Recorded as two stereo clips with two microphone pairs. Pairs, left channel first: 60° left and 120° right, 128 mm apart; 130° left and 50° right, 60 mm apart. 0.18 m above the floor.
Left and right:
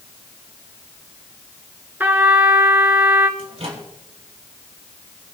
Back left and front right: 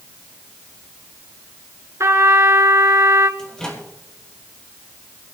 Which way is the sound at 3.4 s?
155° right.